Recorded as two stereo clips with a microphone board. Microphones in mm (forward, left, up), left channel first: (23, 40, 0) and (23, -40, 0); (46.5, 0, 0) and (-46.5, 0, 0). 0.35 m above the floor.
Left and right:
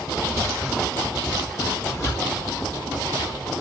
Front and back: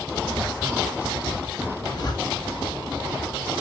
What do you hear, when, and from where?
1.7 s a zipper: 40° left, 3.5 m